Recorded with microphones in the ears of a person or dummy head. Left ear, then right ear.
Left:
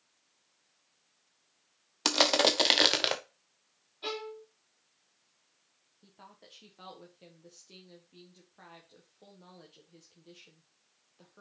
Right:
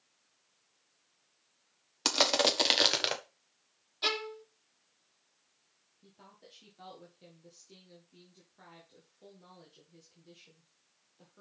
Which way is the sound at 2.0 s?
5° left (ahead or behind).